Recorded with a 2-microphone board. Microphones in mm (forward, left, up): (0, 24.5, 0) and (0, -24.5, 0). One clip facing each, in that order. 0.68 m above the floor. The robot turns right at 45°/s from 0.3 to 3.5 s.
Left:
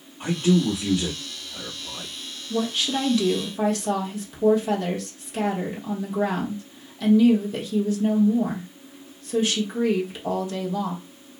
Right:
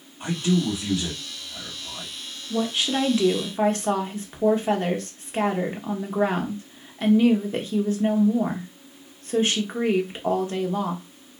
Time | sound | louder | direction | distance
0.2 | a man speaking | left 3 dB | 35° left (ahead or behind) | 1.2 m
2.5 | a woman speaking | even | straight behind | 1.0 m